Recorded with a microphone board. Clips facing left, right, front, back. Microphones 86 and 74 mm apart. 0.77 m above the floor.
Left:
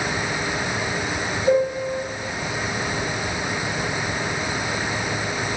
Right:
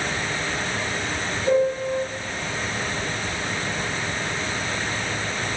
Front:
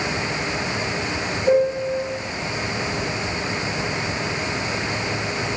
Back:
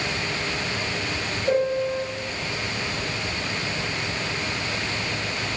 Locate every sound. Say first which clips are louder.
1.5 s a piano: even, front 4 dB; 10° right, 2 m